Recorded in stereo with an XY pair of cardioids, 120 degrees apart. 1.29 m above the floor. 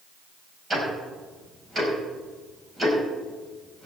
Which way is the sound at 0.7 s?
20° right.